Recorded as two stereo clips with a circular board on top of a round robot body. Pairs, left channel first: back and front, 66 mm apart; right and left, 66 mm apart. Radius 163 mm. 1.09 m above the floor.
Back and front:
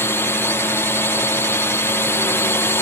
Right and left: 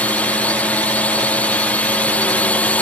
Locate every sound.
0.0 s a drone: 150° right